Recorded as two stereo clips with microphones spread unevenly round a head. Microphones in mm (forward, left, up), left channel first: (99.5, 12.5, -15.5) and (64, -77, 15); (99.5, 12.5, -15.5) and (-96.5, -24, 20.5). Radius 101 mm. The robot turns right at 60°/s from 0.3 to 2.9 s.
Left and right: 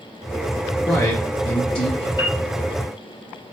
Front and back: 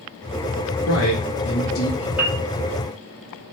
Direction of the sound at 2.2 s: 125° left.